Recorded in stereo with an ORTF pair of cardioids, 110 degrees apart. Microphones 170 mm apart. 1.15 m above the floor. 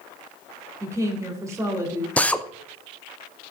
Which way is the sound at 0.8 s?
15° right.